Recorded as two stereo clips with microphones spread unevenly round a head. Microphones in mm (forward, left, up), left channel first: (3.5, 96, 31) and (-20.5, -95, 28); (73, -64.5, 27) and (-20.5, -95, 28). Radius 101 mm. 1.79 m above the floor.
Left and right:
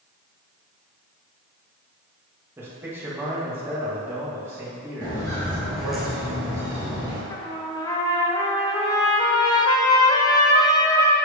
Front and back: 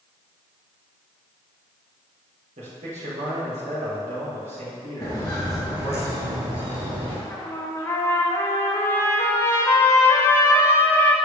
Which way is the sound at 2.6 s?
175° right.